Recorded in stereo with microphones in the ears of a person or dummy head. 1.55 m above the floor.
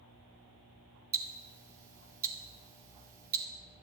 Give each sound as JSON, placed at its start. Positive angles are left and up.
{"t": 1.1, "sound": "ticking", "side_deg": -15, "distance_m": 0.9}